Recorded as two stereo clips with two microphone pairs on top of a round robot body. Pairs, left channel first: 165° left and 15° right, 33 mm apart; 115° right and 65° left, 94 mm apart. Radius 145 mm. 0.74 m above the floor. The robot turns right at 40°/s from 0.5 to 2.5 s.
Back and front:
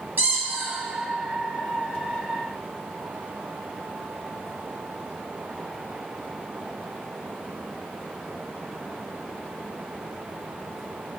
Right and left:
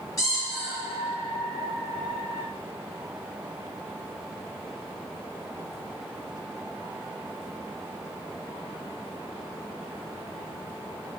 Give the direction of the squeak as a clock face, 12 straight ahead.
2 o'clock.